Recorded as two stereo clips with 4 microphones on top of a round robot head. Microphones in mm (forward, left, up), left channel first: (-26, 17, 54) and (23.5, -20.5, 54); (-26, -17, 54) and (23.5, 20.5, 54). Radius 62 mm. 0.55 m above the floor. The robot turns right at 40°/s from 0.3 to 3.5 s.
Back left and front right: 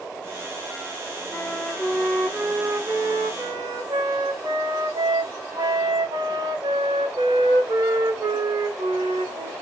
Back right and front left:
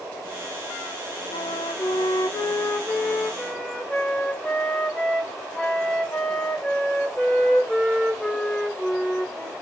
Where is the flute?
145° right, 0.5 m; by 9.5 s 60° right, 0.5 m.